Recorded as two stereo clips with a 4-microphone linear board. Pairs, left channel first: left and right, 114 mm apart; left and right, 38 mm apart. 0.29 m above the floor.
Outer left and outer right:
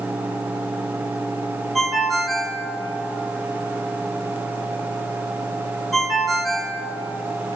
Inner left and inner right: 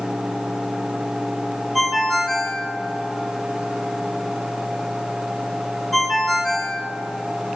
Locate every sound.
1.8 s a ringtone: centre (ahead or behind), 2 m